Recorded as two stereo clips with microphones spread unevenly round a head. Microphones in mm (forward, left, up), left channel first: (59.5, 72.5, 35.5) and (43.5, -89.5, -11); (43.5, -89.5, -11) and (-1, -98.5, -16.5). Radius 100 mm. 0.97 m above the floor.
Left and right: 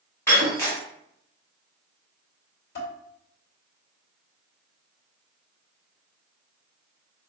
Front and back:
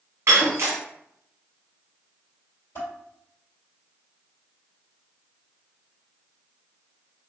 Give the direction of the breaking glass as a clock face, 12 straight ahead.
7 o'clock.